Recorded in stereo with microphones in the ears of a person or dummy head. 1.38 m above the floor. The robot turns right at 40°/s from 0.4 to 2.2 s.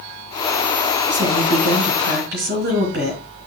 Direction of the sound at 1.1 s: 155° right.